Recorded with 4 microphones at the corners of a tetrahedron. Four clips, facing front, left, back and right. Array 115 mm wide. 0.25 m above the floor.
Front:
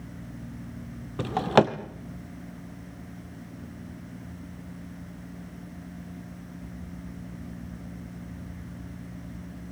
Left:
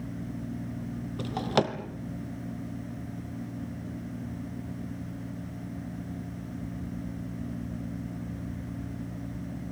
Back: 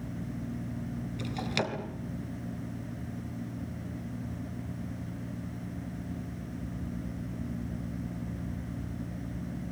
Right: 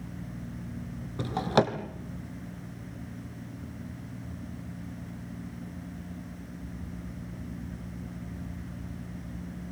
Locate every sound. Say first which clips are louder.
1.2 s a drawer: right 2 dB, front 13 dB; straight ahead, 1.9 m